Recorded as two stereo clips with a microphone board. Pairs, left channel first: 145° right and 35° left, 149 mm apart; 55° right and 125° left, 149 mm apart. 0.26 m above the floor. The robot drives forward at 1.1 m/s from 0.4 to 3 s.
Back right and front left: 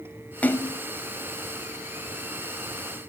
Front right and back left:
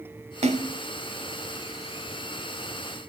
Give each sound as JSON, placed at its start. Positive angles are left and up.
{"t": 0.4, "sound": "a splash", "azimuth_deg": 140, "distance_m": 1.1}